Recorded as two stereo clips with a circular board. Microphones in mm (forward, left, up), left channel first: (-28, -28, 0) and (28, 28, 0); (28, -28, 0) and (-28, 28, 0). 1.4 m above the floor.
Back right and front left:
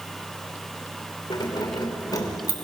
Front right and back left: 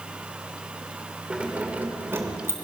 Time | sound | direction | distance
1.3 | keys jangling | 150° right | 3 m